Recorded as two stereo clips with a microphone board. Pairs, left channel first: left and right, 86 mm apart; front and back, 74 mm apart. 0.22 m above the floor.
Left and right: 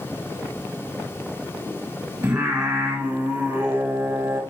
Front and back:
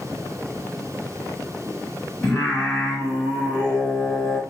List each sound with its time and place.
2.2 s singing: 60° right, 1.8 m